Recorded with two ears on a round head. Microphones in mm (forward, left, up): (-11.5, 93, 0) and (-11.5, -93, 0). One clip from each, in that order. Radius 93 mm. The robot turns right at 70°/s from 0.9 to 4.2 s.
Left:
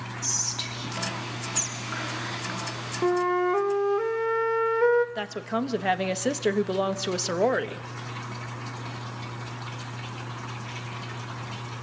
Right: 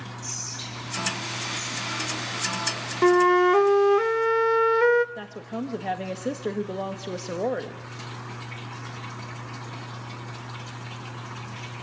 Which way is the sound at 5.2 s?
55° left (ahead or behind).